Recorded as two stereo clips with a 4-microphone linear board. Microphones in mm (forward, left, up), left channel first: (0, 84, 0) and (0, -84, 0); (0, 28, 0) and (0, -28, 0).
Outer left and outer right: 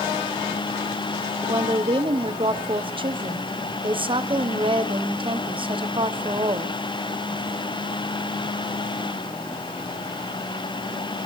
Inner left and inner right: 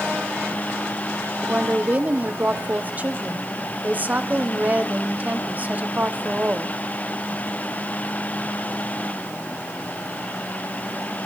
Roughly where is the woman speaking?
Right.